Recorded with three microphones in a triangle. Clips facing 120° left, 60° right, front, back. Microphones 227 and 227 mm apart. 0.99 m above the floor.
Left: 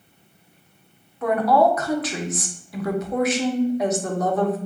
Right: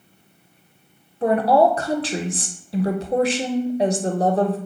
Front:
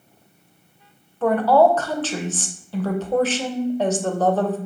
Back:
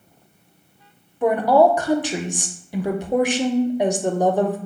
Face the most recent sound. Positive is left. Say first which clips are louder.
# right 2 dB, even
turn(degrees=-105)